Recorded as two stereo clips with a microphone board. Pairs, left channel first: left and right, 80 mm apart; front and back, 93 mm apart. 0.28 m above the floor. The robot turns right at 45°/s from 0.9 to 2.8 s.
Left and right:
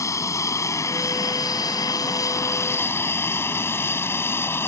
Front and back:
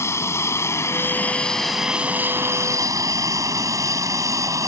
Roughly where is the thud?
I don't hear a thud.